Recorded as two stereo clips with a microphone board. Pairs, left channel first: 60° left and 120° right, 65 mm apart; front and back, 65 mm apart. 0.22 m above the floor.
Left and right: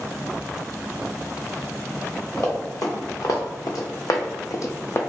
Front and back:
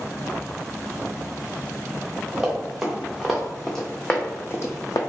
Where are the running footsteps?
100° left, 1.4 m; by 5.0 s 15° left, 0.5 m.